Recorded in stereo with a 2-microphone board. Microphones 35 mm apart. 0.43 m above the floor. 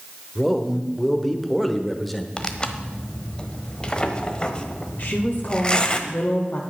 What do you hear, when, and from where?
0.3 s a man speaking: 5° left (ahead or behind), 1.2 m
2.4 s tearing paper: 25° left (ahead or behind), 1.1 m
5.0 s a woman speaking: 45° left (ahead or behind), 1.4 m